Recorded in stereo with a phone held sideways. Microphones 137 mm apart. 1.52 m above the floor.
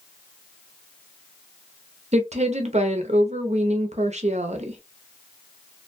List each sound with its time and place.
2.1 s a woman speaking: 55° right (ahead or behind), 0.7 m